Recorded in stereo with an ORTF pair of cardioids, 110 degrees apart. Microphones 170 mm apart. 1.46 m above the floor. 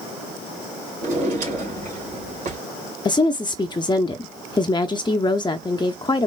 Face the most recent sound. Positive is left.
turn(degrees=30)